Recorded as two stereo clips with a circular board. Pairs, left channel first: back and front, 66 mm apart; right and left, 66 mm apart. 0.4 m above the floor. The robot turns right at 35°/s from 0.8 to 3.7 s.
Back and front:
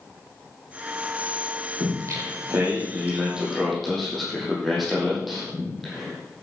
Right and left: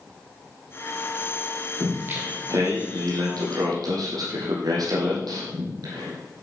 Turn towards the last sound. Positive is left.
turn(degrees=90)